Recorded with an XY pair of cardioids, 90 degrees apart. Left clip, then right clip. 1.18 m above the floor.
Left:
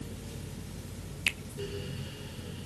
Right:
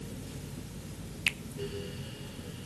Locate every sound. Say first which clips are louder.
0.0 s a fan: even; 10° left, 2.0 m
1.3 s a finger snap: even; 10° left, 1.0 m